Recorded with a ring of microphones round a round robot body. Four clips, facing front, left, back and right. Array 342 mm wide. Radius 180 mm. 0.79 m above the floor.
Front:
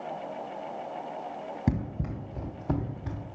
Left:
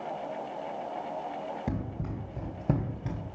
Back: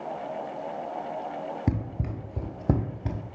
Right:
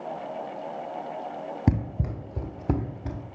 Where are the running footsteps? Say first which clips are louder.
Right 7 dB, front 3 dB; 95° right, 1.0 m; by 3.2 s straight behind, 1.0 m.